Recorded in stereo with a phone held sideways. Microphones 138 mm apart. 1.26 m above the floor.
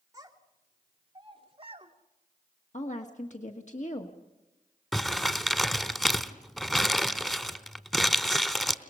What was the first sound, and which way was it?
A child speaking, 25° right (ahead or behind).